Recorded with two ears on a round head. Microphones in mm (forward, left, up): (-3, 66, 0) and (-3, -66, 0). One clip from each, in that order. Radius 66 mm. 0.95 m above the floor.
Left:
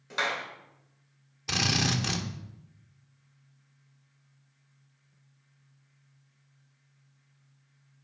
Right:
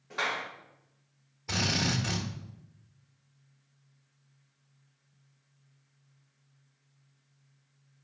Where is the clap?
85° left, 2.5 m.